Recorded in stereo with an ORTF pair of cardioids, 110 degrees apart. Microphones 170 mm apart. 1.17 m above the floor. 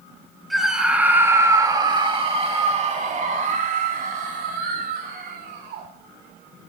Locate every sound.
0.5 s a scream: straight ahead, 2.5 m; by 5.9 s 65° right, 5 m